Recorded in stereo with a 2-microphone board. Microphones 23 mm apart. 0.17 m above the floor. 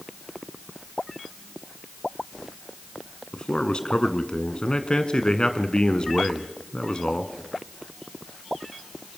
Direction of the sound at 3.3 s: 40° left (ahead or behind).